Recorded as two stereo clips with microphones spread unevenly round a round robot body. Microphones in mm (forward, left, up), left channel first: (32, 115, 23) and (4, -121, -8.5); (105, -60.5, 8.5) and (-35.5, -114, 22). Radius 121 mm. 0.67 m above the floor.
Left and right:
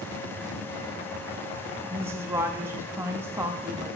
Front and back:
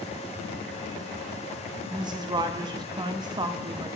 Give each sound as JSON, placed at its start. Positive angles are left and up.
{"t": 1.9, "sound": "a woman speaking", "azimuth_deg": -140, "distance_m": 0.7}